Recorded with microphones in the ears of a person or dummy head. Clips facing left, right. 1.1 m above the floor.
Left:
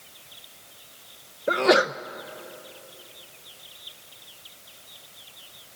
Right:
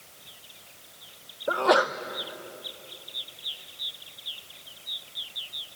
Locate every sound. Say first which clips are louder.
1.5 s a sneeze: left 3 dB; 20° left (ahead or behind), 0.6 m